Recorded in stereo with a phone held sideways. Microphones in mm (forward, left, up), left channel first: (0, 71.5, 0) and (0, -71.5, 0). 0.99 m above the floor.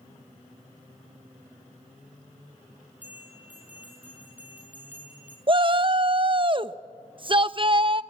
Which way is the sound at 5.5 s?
35° right (ahead or behind).